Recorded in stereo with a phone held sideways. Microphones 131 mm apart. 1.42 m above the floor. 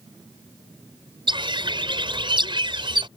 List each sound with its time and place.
1.3 s a bird: 40° right (ahead or behind)